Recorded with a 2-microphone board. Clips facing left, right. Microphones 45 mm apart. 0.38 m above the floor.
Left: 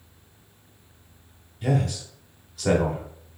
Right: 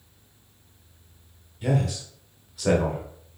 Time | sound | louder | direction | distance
1.6 | a man speaking | even | centre (ahead or behind) | 0.9 m